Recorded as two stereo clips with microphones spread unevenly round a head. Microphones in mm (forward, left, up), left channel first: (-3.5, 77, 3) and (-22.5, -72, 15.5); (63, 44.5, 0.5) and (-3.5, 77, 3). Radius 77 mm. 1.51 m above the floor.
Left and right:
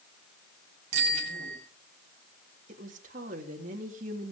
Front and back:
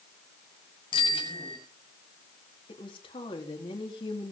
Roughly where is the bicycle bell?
Ahead right.